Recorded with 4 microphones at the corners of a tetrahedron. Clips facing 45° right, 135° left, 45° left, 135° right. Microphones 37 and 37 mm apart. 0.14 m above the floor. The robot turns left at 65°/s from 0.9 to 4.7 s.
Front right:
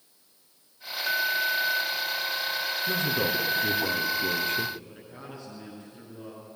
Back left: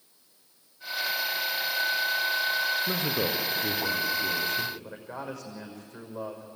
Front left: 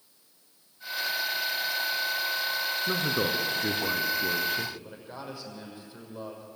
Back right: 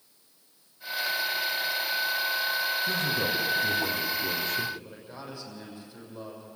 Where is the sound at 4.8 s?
115° left, 6 m.